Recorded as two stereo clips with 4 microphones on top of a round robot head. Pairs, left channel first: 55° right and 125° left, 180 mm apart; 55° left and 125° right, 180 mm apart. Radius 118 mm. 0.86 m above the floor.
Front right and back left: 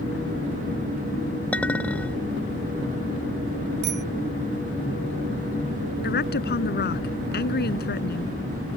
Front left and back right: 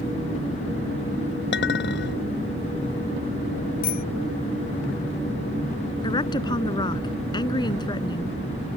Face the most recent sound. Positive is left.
turn(degrees=-15)